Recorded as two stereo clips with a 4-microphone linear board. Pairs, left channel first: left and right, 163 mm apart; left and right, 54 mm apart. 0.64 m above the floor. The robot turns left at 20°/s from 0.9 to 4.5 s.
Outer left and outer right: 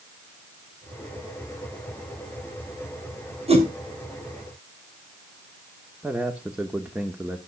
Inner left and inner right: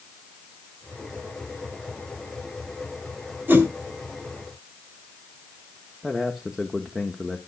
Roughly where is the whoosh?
Right.